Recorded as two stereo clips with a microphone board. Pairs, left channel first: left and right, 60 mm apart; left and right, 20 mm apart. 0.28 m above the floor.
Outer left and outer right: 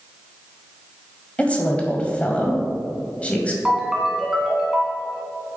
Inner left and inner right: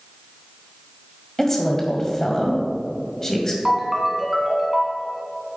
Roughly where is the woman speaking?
Left.